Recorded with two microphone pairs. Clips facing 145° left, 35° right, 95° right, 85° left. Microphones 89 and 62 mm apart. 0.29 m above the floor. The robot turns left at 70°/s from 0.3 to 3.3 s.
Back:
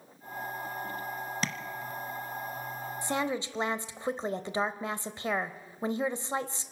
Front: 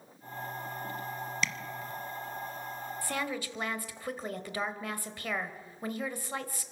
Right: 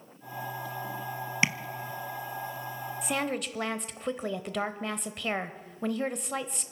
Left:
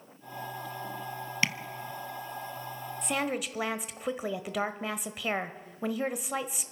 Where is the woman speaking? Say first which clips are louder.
Back 5 dB, even; straight behind, 0.9 m; by 6.7 s 160° left, 0.9 m.